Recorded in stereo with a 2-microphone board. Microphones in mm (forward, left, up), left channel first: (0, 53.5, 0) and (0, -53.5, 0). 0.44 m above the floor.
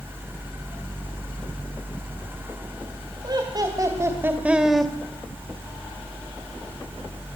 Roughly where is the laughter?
Right.